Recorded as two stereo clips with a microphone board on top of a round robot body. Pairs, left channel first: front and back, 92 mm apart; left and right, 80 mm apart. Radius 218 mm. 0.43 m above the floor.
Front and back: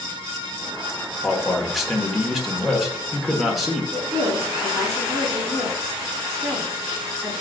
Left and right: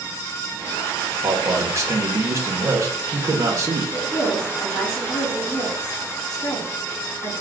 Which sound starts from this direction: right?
A man speaking, at 1.2 s.